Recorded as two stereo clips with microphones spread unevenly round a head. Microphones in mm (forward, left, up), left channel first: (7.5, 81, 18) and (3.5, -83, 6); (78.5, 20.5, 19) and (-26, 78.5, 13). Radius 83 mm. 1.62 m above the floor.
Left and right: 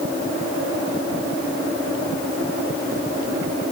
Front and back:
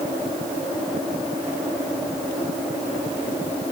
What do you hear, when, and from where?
Only background noise.